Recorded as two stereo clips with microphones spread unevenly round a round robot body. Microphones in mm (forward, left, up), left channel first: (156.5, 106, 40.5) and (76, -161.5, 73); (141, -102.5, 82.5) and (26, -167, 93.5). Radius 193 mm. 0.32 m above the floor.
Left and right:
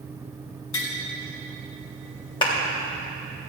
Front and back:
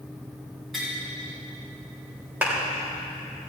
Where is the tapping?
120° left, 1.6 m.